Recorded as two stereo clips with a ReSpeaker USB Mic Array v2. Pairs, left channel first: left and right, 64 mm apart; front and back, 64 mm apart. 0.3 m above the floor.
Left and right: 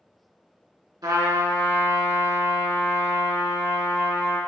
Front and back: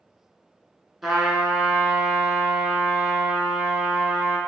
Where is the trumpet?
90° right, 1.2 m.